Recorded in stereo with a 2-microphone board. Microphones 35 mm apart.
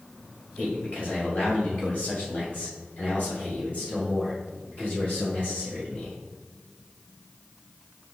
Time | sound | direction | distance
0.6 | a man speaking | 45° left (ahead or behind) | 1.6 m